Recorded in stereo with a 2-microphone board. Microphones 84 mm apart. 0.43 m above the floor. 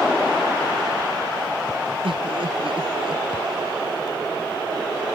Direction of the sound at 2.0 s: 80° right.